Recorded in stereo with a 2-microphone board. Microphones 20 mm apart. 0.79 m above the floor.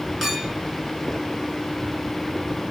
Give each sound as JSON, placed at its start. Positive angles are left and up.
{"t": 0.2, "sound": "a clink", "side_deg": -15, "distance_m": 1.9}